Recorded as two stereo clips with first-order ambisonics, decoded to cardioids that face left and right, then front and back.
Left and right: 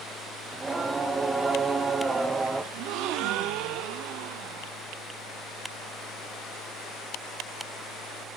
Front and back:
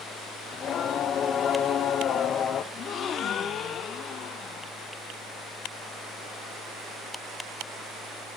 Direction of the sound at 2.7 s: 60° right.